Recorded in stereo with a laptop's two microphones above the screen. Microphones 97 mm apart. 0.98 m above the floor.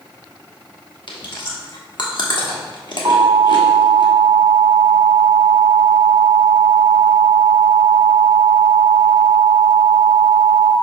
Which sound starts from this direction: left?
Chewing, at 1.1 s.